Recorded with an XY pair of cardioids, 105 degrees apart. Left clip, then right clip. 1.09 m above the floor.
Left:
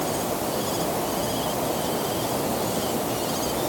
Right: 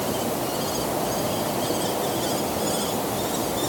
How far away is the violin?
No violin in this recording.